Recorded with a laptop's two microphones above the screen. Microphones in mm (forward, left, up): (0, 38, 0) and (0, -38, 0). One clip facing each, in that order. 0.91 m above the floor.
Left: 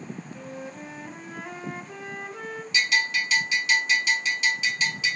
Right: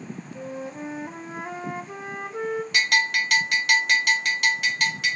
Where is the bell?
60° right (ahead or behind), 0.6 m.